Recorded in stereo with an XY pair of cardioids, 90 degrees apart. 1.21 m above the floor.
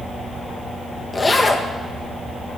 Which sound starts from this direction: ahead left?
A zipper, at 1.1 s.